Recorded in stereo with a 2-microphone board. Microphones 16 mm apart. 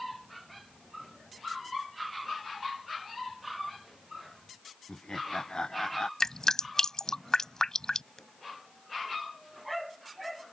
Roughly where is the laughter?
Left.